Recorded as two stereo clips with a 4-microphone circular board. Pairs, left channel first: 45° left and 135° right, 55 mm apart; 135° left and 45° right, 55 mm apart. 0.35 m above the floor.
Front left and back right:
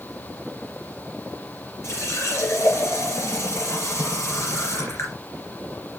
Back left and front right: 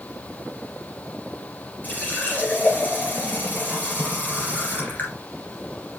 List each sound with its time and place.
1.8 s a running tap: 80° left, 3.5 m